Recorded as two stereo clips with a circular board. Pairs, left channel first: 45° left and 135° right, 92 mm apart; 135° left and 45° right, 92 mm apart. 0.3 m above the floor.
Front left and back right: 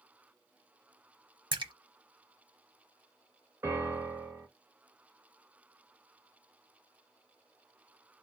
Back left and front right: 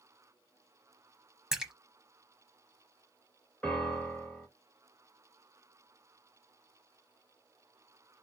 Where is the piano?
160° right, 1.6 m.